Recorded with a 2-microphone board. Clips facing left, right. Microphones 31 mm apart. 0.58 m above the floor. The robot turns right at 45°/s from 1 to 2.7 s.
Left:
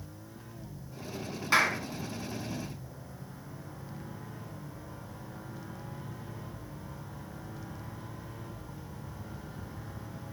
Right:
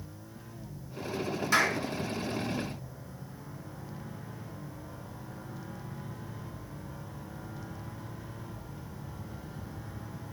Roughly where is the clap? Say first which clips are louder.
Left 1 dB; left.